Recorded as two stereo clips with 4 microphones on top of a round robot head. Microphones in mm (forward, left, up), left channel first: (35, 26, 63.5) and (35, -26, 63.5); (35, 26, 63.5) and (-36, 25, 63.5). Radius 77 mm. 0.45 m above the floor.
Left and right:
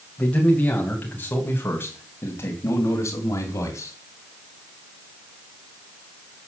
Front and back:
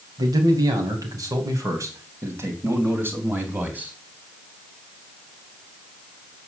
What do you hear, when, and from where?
0.2 s a man speaking: 160° left, 4 m; by 3.9 s 115° left, 3.5 m